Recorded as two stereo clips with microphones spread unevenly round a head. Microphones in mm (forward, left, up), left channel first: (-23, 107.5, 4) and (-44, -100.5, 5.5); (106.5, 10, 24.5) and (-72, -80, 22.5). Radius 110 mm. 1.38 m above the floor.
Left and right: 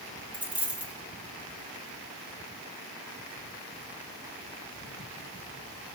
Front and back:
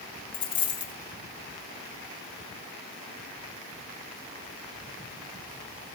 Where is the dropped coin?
15° right, 0.8 m.